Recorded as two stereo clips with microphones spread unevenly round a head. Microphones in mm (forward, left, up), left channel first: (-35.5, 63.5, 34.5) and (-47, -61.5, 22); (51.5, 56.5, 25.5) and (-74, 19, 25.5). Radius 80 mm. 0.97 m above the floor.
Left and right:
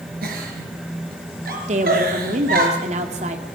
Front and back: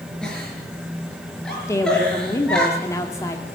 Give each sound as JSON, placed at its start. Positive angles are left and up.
{"t": 0.2, "sound": "a giggle", "azimuth_deg": -70, "distance_m": 5.5}
{"t": 1.7, "sound": "a woman speaking", "azimuth_deg": -55, "distance_m": 2.0}